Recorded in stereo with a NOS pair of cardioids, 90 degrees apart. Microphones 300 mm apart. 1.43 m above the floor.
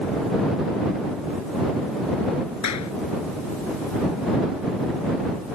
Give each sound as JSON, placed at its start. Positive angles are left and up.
{"t": 2.6, "sound": "a clap", "azimuth_deg": 60}